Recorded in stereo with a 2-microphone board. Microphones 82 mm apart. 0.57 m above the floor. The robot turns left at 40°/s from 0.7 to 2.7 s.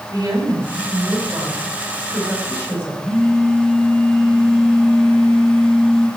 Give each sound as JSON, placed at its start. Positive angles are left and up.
{"t": 0.1, "sound": "a woman speaking", "azimuth_deg": -125, "distance_m": 4.5}
{"t": 3.0, "sound": "a phone buzzing", "side_deg": 0, "distance_m": 3.0}